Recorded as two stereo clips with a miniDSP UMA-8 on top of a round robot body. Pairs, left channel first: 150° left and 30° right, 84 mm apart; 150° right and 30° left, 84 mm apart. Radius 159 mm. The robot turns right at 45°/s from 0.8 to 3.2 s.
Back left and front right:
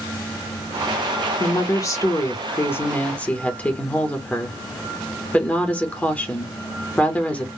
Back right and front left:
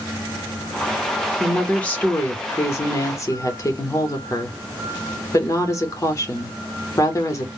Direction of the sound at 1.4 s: 130° left.